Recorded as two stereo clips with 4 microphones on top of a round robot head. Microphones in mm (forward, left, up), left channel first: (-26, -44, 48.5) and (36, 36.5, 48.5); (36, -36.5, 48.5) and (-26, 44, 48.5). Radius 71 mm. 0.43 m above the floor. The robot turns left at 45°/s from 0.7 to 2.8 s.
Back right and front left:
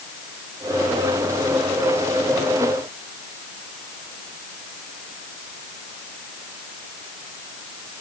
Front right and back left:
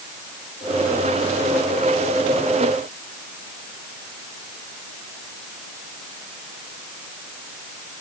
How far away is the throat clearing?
I don't hear throat clearing.